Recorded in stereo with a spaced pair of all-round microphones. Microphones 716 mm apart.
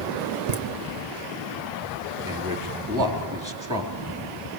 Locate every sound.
0.5 s laughter: 60° right (ahead or behind), 1.3 m
2.2 s a man speaking: 25° right (ahead or behind), 4 m